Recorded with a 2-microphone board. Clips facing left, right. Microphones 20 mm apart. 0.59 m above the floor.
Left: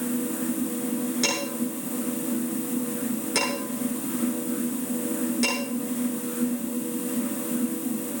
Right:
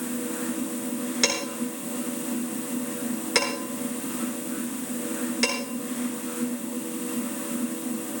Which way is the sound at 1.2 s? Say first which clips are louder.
Even; 30° right (ahead or behind).